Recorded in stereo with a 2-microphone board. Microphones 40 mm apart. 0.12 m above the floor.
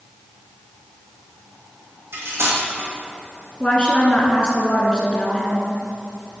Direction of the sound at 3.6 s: 25° left (ahead or behind).